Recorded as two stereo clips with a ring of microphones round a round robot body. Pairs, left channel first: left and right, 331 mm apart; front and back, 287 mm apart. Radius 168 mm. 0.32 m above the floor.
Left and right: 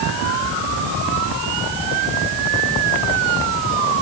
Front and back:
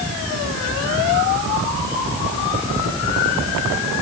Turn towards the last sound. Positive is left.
No sound to turn to.